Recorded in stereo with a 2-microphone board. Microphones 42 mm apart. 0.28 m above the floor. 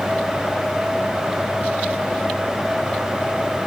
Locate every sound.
Only background noise.